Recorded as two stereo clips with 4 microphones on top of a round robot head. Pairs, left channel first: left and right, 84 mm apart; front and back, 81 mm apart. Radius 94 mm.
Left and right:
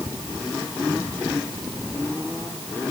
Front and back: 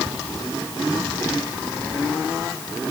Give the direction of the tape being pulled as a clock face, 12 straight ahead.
I don't hear tape being pulled.